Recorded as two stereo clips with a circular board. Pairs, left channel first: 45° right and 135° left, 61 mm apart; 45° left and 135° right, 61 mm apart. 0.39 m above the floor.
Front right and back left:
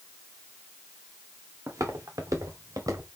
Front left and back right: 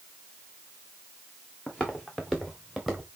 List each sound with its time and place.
1.7 s footsteps: 120° left, 2.5 m; by 3.1 s 135° left, 2.5 m